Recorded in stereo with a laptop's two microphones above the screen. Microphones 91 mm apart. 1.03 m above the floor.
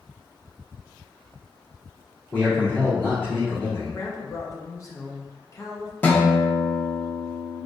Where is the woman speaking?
35° left (ahead or behind), 0.8 m.